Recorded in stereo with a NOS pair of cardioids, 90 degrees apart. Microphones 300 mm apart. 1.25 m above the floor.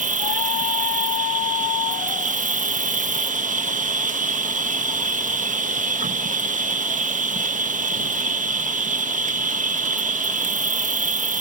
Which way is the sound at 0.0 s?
25° right.